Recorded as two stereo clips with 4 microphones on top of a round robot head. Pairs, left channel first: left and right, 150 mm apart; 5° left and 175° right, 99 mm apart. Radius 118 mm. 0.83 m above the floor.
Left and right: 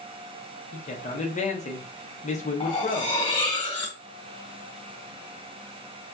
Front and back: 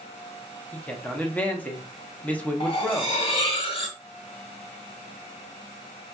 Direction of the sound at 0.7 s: 75° left.